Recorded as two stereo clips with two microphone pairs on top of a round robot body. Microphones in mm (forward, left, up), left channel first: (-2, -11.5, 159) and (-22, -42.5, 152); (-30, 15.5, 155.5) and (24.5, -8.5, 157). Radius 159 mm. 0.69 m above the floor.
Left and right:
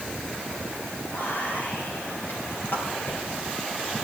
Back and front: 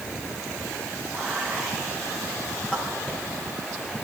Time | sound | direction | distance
1.1 | whispering | 85° left | 5.5 m